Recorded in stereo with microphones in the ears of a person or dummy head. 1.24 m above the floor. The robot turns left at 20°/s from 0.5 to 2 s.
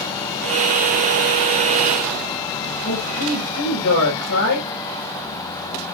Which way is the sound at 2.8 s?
80° left.